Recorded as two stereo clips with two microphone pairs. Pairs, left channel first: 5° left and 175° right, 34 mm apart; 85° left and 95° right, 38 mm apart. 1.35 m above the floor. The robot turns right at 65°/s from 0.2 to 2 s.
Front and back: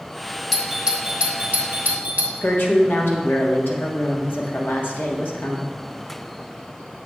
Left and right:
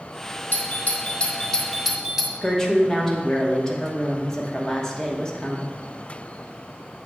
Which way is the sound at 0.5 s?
90° left.